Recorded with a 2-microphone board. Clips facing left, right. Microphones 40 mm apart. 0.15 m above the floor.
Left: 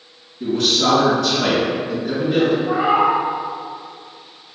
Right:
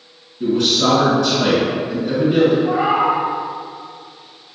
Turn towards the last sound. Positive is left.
turn(degrees=-75)  # may be behind; listen again after turning